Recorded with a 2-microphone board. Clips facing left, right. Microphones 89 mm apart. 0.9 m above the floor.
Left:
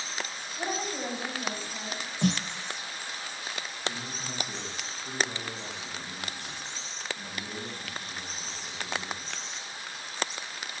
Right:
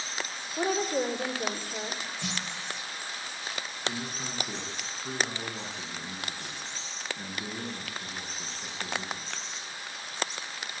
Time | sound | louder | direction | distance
0.6 | a woman speaking | right 6 dB | 65° right (ahead or behind) | 3.5 m
2.2 | a snare drum | left 13 dB | 45° left (ahead or behind) | 0.9 m
3.8 | a man speaking | right 2 dB | 45° right (ahead or behind) | 9 m